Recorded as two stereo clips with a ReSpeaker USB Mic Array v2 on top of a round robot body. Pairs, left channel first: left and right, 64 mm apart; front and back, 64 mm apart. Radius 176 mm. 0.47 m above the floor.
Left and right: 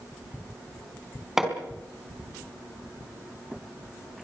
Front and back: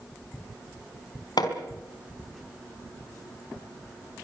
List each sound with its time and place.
1.4 s hammering: 5° right, 4 m